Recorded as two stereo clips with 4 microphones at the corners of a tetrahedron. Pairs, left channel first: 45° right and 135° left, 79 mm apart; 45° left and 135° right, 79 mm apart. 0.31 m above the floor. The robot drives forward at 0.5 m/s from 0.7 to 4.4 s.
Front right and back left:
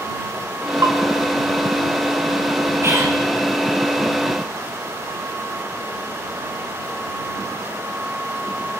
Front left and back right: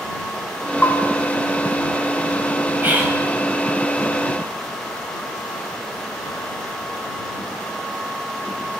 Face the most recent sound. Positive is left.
turn(degrees=170)